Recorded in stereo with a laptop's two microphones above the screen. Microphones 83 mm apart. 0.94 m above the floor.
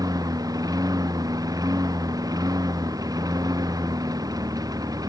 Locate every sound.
0.0 s a lawn mower: 50° right (ahead or behind)